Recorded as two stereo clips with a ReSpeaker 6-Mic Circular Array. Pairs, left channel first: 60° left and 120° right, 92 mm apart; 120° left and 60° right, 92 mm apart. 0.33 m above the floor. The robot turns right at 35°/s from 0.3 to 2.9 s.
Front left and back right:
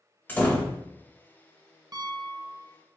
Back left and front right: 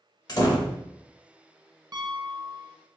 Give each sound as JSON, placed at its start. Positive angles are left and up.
{"t": 0.3, "sound": "a door slam", "azimuth_deg": 120, "distance_m": 0.7}
{"t": 1.9, "sound": "a piano", "azimuth_deg": -90, "distance_m": 0.6}